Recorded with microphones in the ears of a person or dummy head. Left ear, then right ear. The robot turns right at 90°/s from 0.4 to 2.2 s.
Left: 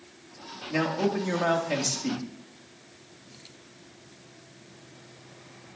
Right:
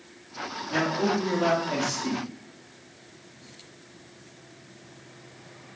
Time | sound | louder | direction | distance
0.7 | a man speaking | right 1 dB | 25° left | 1.7 m